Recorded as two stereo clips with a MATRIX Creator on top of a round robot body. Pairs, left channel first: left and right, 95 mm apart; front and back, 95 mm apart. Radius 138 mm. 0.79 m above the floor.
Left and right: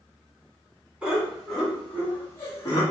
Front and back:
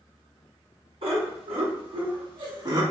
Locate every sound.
1.0 s laughter: 170° right, 2 m; by 2.8 s 140° left, 2 m